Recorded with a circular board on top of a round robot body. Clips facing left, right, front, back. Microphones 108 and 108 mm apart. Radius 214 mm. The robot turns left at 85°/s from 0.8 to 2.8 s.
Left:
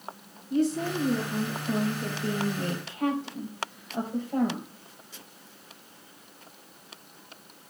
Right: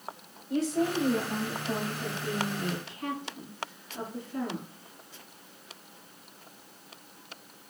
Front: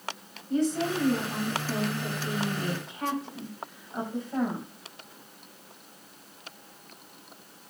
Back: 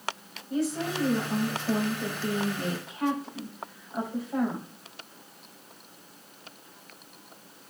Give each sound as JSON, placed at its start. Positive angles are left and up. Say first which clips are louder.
{"t": 0.5, "sound": "a woman speaking", "louder": "left 1 dB, front 3 dB", "azimuth_deg": -95, "distance_m": 5.5}